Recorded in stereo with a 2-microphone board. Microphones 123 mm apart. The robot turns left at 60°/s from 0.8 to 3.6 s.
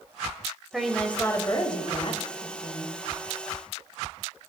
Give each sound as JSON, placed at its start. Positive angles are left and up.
{"t": 0.7, "sound": "a woman speaking", "azimuth_deg": -175, "distance_m": 1.4}